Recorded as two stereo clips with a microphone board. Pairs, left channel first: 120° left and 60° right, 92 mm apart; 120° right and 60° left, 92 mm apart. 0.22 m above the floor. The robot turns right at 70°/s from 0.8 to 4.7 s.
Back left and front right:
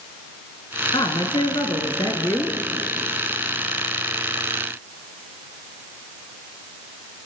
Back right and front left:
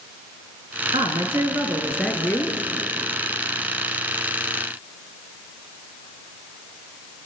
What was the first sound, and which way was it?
A woman speaking, 80° left.